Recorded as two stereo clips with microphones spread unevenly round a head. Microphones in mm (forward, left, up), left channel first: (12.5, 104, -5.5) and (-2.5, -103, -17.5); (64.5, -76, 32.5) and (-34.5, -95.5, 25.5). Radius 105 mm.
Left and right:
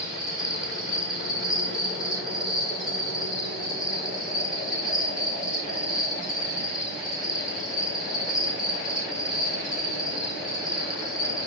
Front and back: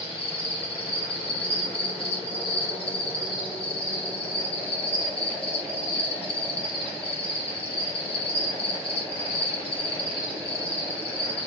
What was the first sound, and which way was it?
An insect, 5° right.